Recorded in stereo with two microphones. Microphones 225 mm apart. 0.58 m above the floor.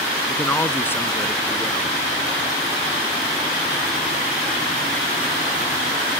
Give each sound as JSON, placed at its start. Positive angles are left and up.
{"t": 0.3, "sound": "a man speaking", "side_deg": 10}